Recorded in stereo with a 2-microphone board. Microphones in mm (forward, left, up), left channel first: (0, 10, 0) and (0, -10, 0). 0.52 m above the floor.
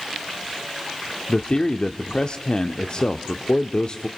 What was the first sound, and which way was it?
A man speaking, 45° left (ahead or behind).